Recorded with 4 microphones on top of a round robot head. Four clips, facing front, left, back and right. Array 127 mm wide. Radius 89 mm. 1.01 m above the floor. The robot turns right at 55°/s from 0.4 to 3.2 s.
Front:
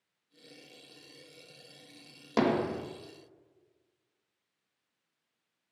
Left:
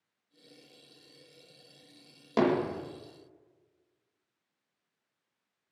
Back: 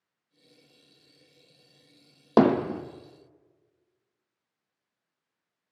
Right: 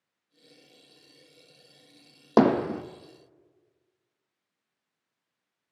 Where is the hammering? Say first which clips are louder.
Right 6 dB, back 7 dB; 135° right, 1.5 m; by 2.8 s 110° right, 1.5 m.